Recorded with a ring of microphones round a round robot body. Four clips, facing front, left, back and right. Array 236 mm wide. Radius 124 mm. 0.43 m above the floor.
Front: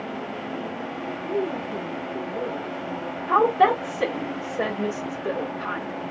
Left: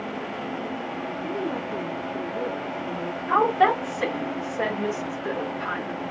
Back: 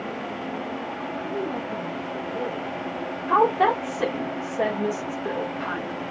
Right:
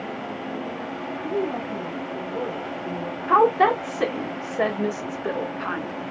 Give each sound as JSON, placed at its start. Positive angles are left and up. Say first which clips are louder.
{"t": 1.2, "sound": "a woman speaking", "louder": "right 4 dB, front 4 dB", "azimuth_deg": -105, "distance_m": 4.0}
{"t": 3.3, "sound": "a woman speaking", "louder": "right 3 dB, front 1 dB", "azimuth_deg": -75, "distance_m": 1.5}